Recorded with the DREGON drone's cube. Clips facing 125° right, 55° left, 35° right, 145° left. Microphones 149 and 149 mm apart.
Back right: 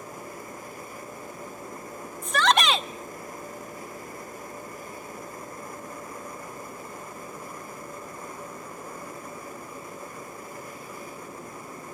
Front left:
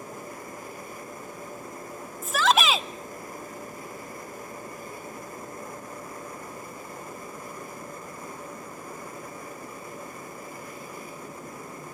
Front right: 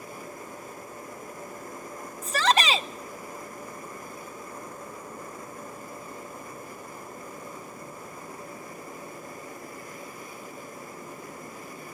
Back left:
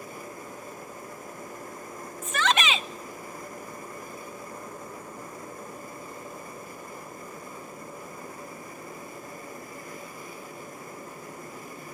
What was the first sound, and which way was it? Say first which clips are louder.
A shout: even, front right 2 dB; 30° right.